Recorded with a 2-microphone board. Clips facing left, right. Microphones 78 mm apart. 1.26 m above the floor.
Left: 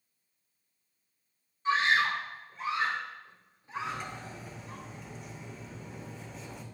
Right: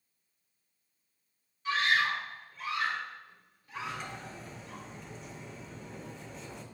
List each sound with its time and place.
1.6 s a scream: 30° left (ahead or behind), 2 m
3.8 s cutlery clinking: centre (ahead or behind), 2 m